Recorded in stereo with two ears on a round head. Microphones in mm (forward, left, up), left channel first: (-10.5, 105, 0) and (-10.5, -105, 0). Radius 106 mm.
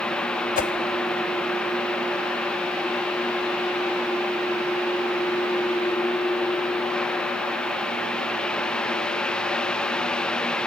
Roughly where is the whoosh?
Left.